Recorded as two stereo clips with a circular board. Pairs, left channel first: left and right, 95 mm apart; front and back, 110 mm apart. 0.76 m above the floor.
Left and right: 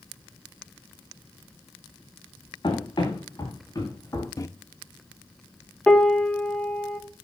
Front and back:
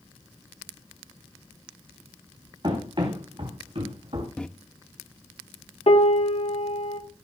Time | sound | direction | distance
2.6 | running footsteps | 135° left | 7.5 m
4.4 | a microwave | 75° left | 0.8 m
5.9 | a piano | 10° left | 1.5 m